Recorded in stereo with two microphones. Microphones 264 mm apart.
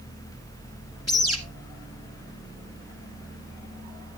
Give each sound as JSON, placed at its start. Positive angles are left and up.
{"t": 1.1, "sound": "a bird", "side_deg": 60, "distance_m": 1.3}